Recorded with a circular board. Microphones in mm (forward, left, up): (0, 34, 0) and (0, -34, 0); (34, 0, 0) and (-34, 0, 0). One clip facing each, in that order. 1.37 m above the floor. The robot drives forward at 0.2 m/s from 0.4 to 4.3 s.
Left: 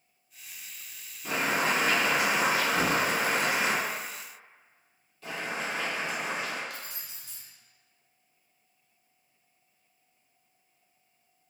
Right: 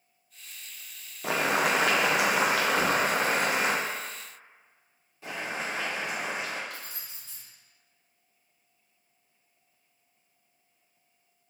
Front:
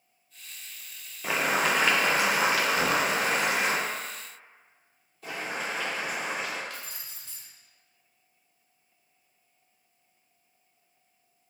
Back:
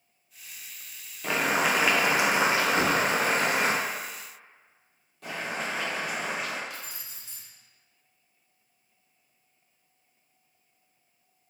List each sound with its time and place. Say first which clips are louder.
1.2 s boiling: right 2 dB, back 1 dB; 85° right, 0.5 m; by 3.8 s 135° right, 0.7 m
2.8 s a thud: right 1 dB, back 1 dB; 150° left, 1.0 m
5.2 s boiling: even, back 1 dB; 160° right, 1.5 m
6.7 s keys jangling: even, even; 105° left, 1.0 m